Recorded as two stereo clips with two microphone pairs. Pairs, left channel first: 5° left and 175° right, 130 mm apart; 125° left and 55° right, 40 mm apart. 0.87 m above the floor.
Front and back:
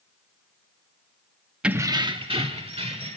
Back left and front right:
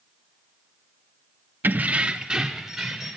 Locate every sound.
1.6 s keys jangling: 90° right, 0.6 m; by 3.2 s 140° right, 2.5 m